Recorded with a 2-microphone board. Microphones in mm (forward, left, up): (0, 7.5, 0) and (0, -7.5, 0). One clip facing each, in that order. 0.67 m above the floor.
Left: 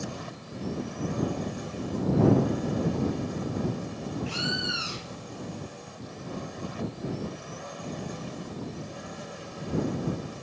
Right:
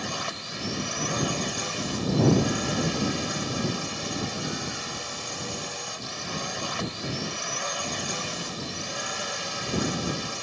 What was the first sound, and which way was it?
A drone, 60° right (ahead or behind).